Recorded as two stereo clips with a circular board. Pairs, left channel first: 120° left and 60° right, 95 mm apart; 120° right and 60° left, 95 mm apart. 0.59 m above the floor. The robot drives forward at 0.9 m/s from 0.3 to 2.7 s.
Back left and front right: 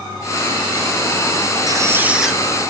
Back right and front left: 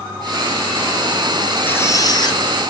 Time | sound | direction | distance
1.7 | a squeak | 60° right | 0.5 m